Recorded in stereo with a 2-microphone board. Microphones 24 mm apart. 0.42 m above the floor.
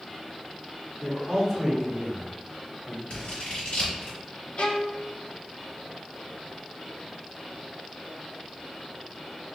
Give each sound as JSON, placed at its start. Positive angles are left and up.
{"t": 1.0, "sound": "a man speaking", "side_deg": -10, "distance_m": 1.0}
{"t": 3.1, "sound": "scissors", "side_deg": 50, "distance_m": 1.5}
{"t": 4.6, "sound": "a violin", "side_deg": 50, "distance_m": 0.5}